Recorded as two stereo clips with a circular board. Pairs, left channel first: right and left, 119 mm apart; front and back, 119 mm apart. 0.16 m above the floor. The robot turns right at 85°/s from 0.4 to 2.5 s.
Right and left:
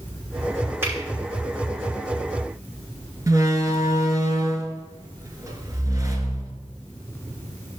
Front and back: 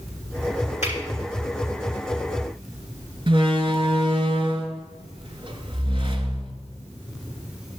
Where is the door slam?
145° left, 1.3 m.